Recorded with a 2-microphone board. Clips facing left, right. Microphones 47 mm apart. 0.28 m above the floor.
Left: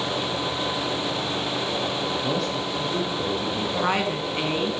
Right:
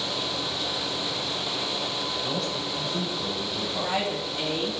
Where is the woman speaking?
65° left (ahead or behind), 2.5 m.